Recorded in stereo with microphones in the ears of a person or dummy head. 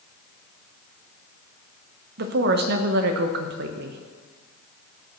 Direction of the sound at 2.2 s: 60° right (ahead or behind).